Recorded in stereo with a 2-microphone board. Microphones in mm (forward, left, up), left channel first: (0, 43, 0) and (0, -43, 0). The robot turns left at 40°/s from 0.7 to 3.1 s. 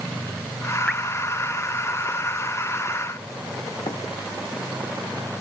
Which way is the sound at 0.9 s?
5° left (ahead or behind).